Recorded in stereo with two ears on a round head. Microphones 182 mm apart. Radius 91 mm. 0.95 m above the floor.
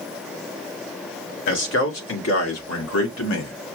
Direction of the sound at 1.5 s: 65° left (ahead or behind).